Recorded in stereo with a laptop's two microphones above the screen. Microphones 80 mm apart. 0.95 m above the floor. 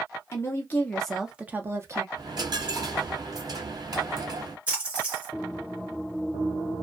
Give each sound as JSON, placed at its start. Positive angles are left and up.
{"t": 0.3, "sound": "a woman speaking", "side_deg": 35, "distance_m": 0.7}
{"t": 2.1, "sound": "a dropped coin", "side_deg": -55, "distance_m": 1.0}
{"t": 4.7, "sound": "a splash", "side_deg": -15, "distance_m": 1.3}